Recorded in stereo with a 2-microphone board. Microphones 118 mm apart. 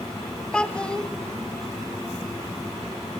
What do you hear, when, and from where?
0.5 s a child speaking: 10° left (ahead or behind), 0.8 m